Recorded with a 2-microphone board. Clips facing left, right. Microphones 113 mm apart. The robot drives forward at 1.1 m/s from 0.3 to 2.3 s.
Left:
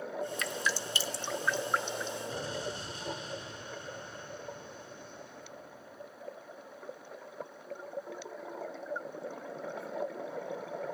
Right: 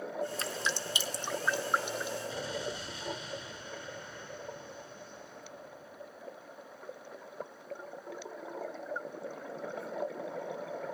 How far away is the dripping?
About 0.6 m.